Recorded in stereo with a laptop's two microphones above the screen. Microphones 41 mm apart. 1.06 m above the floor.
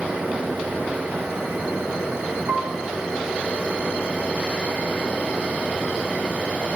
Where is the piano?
50° right (ahead or behind), 0.5 m.